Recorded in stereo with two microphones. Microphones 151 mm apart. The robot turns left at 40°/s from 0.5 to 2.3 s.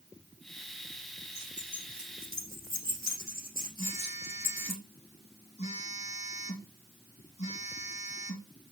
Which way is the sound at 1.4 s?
50° left (ahead or behind).